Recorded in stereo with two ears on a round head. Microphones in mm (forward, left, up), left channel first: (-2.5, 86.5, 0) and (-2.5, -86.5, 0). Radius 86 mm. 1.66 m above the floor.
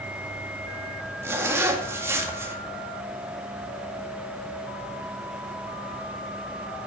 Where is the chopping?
No chopping in this recording.